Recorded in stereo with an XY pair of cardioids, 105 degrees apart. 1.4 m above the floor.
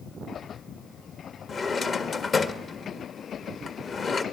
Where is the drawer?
45° left, 1.5 m.